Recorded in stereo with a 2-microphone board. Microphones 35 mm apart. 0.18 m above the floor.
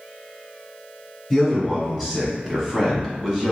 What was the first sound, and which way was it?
A man speaking, 5° left (ahead or behind).